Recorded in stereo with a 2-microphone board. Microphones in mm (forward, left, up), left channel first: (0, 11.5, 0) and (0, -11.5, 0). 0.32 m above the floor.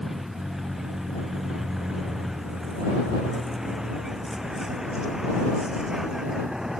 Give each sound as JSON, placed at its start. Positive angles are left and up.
{"t": 0.0, "sound": "a vehicle", "side_deg": -15}